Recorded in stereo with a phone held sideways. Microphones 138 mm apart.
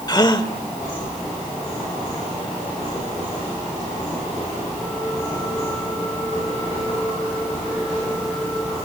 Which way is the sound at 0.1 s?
30° left (ahead or behind).